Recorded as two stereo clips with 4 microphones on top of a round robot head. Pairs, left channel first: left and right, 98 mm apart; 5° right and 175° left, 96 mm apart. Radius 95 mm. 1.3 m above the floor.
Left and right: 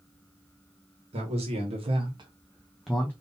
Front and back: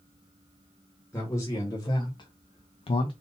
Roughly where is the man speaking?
Right.